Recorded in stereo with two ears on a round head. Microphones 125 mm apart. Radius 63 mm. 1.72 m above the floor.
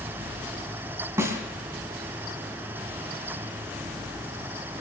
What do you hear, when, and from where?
1.2 s a snare drum: 20° right (ahead or behind), 2 m